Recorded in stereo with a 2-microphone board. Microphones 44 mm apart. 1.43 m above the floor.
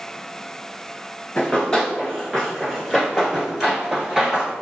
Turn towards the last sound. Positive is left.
turn(degrees=-15)  # may be behind; listen again after turning